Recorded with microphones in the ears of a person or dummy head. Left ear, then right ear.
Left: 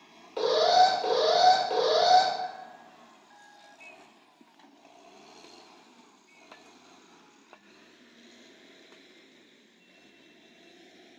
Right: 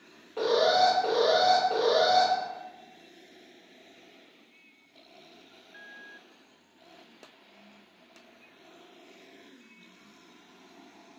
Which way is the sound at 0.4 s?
45° left (ahead or behind).